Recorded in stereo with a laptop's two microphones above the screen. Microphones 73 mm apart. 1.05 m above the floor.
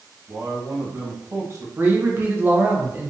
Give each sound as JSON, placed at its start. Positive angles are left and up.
{"t": 0.3, "sound": "a man speaking", "side_deg": -40, "distance_m": 1.3}
{"t": 1.8, "sound": "a man speaking", "side_deg": -25, "distance_m": 0.7}